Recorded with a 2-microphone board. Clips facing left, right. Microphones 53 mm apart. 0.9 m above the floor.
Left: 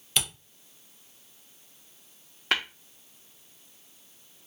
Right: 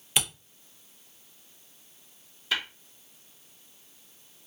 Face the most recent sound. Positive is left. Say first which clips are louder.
# left 3 dB
turn(degrees=60)  # may be behind; listen again after turning